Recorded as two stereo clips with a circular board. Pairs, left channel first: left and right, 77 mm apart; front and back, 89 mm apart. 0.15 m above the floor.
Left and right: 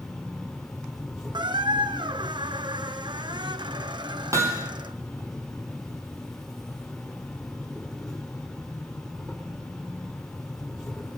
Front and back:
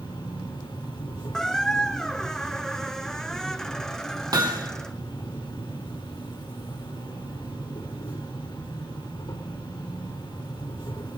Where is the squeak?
85° right, 0.6 m.